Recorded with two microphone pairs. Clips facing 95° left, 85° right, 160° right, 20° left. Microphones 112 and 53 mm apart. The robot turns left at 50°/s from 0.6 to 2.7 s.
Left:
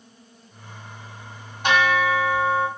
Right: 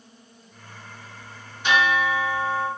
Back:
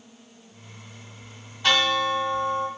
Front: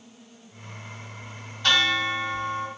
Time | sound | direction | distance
1.6 | a bell | 125° left | 1.4 m